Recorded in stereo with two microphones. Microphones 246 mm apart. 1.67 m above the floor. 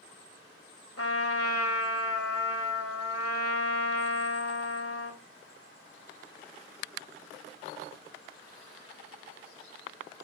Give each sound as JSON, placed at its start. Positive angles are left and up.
{"t": 1.0, "sound": "a trumpet", "side_deg": 70, "distance_m": 3.0}